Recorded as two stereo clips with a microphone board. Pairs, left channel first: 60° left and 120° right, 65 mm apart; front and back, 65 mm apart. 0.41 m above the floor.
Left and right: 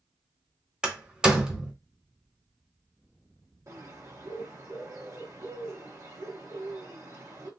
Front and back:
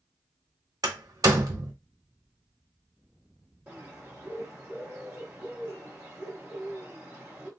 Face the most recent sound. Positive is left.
turn(degrees=-120)